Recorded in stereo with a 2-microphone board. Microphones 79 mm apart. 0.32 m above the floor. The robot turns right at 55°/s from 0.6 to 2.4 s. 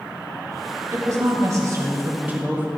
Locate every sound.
0.9 s a woman speaking: 115° right, 1.7 m; by 2.7 s 30° right, 1.7 m